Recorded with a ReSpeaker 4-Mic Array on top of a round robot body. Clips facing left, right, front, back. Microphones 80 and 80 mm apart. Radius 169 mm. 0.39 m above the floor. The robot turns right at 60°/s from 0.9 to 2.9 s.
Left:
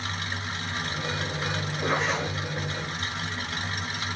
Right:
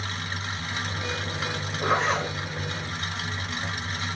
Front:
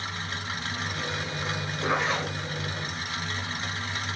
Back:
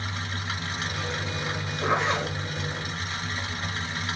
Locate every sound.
1.8 s a zipper: 140° right, 2 m; by 2.4 s 105° right, 2 m